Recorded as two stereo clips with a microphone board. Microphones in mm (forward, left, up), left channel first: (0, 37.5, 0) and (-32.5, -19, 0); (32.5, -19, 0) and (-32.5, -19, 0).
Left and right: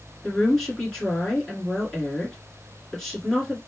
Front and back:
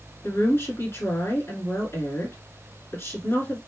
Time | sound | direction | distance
0.2 | a woman speaking | 20° right | 2.0 m